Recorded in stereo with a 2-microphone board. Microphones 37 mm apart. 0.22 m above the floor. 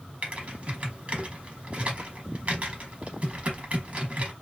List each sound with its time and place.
0.2 s typing on a keyboard: 40° right (ahead or behind), 0.8 m